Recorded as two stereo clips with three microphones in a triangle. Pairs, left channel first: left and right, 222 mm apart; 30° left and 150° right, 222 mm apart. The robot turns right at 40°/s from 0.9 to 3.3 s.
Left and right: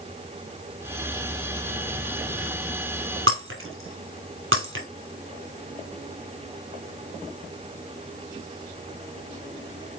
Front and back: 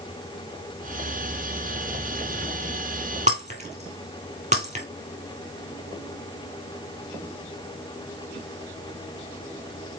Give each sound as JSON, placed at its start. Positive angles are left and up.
{"t": 3.3, "sound": "breaking glass", "azimuth_deg": -95, "distance_m": 1.5}